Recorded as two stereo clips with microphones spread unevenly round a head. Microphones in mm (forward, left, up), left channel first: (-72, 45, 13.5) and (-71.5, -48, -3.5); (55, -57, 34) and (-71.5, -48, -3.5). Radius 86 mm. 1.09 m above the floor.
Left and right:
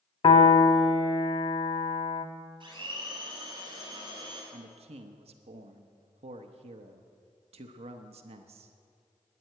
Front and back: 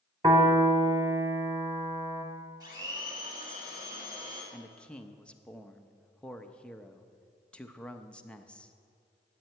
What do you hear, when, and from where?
0.2 s a piano: 100° left, 1.2 m
2.6 s a blender: 125° right, 6.5 m
4.5 s a man speaking: 85° right, 0.9 m